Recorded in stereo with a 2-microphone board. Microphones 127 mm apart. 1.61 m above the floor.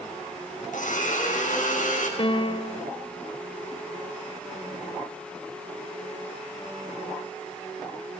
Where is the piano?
40° left (ahead or behind), 1.1 m.